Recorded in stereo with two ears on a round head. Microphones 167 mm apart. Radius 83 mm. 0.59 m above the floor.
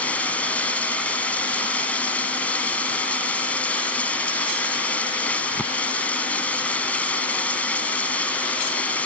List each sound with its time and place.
0.0 s running water: 10° left (ahead or behind)